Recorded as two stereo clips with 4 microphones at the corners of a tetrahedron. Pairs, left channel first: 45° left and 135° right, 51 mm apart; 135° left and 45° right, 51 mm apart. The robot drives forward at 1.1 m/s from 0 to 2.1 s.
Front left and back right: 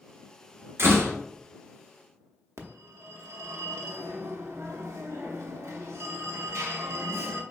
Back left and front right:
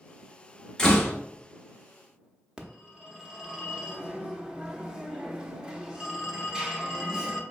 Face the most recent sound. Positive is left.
turn(degrees=-120)